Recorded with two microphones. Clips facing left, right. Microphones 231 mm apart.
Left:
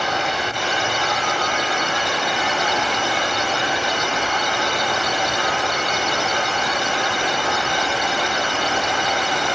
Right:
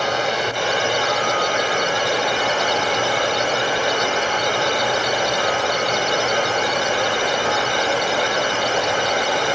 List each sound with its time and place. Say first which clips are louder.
0.0 s running water: right 3 dB; 45° right (ahead or behind), 8.5 m